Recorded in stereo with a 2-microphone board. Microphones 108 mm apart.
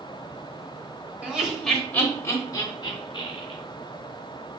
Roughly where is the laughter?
Centre.